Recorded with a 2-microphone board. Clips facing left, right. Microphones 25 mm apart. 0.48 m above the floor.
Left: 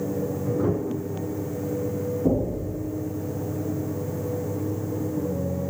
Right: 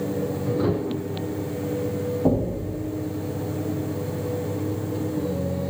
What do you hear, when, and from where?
2.2 s knocking: 75° right (ahead or behind), 3.5 m